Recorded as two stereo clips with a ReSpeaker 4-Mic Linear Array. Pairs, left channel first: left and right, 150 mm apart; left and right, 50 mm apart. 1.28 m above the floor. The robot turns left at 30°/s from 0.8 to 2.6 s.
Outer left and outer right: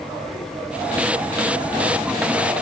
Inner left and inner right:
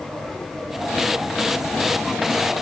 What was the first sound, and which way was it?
Only background noise.